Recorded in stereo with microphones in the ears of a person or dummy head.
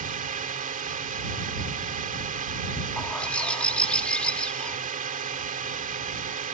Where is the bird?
15° left (ahead or behind).